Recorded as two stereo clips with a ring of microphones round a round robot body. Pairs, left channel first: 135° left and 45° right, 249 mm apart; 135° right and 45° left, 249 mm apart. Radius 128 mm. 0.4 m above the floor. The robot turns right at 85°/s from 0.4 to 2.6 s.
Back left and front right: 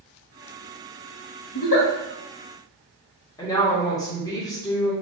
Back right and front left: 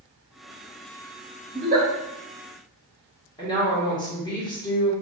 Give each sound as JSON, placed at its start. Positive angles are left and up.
{"t": 1.5, "sound": "a giggle", "azimuth_deg": 80, "distance_m": 1.7}
{"t": 3.4, "sound": "a woman speaking", "azimuth_deg": -175, "distance_m": 1.4}